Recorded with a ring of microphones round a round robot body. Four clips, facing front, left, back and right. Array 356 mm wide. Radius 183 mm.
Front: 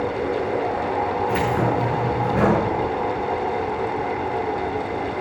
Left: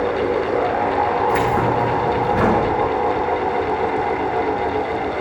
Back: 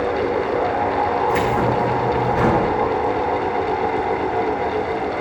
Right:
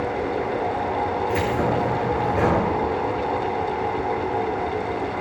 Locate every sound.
1.3 s keys jangling: 60° left, 9 m